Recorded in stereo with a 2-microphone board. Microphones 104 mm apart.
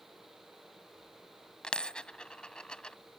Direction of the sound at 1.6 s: 10° left (ahead or behind).